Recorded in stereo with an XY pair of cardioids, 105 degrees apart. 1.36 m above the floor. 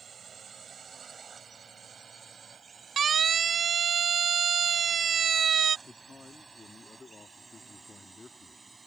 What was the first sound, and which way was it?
A drone, 50° right.